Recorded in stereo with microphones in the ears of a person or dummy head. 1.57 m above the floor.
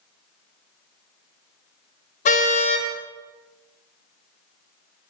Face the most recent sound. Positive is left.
turn(degrees=50)  # may be behind; listen again after turning